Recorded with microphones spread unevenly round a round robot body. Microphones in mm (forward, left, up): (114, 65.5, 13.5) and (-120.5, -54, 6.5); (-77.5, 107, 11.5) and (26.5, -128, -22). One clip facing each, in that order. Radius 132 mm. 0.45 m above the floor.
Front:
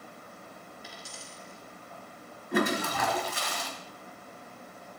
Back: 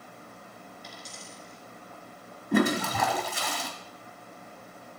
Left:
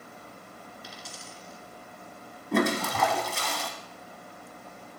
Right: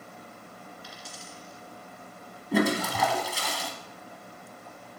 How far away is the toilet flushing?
About 1.3 m.